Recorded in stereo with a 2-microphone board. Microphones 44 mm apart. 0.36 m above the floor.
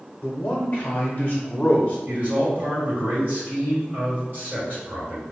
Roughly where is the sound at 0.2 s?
Left.